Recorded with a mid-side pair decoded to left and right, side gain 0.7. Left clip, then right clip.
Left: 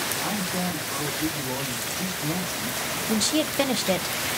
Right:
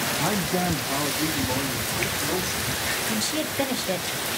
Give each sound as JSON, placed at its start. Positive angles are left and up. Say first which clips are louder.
{"t": 0.2, "sound": "a man speaking", "louder": "right 3 dB", "azimuth_deg": -50, "distance_m": 1.6}
{"t": 3.1, "sound": "a woman speaking", "louder": "left 2 dB", "azimuth_deg": 20, "distance_m": 0.5}